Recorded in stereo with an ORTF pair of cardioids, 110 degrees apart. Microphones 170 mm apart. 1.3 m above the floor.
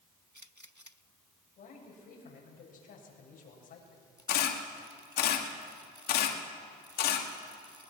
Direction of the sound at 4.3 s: 65° left.